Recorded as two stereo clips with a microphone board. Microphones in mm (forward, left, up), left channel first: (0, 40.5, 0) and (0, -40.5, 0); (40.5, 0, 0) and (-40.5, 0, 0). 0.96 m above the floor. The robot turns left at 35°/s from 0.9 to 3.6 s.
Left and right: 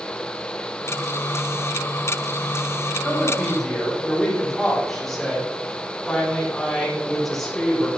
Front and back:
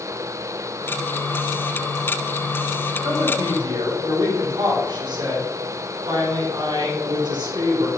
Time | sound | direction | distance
3.0 | a woman speaking | 165° right | 2.5 m